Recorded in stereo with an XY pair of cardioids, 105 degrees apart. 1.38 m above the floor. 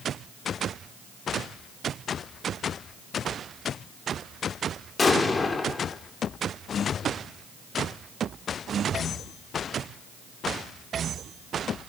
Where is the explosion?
35° left, 2.5 m.